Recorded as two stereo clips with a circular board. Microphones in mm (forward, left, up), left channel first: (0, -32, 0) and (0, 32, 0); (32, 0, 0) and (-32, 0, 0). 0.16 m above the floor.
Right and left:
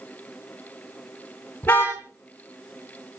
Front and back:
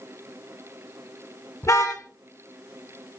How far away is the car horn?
About 7 m.